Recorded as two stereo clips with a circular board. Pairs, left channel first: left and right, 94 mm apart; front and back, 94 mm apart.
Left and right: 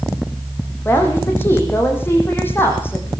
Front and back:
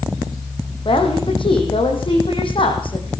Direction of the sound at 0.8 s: 25° left.